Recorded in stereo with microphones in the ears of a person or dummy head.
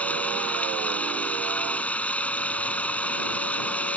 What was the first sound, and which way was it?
Running water, 10° left (ahead or behind).